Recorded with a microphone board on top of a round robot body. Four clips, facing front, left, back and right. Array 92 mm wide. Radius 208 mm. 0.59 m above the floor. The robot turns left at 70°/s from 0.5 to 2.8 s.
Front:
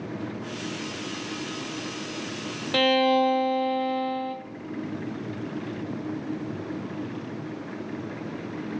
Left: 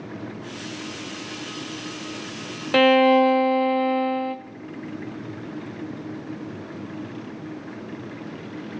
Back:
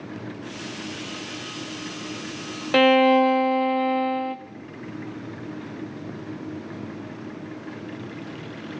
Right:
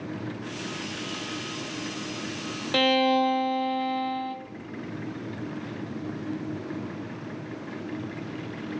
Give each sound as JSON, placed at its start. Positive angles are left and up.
{"t": 2.7, "sound": "a violin", "azimuth_deg": 135, "distance_m": 0.7}